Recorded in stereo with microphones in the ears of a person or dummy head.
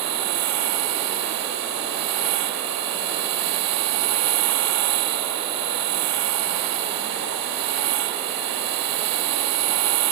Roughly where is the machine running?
Right.